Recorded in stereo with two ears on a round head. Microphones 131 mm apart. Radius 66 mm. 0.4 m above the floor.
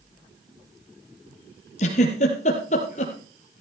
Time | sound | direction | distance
1.8 | a giggle | 50° left (ahead or behind) | 3.5 m